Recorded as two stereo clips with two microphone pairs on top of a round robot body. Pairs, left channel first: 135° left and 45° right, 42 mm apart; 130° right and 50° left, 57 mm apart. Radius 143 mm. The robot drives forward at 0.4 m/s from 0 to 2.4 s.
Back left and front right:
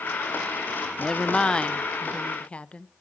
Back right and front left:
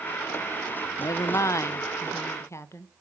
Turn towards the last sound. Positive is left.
turn(degrees=-165)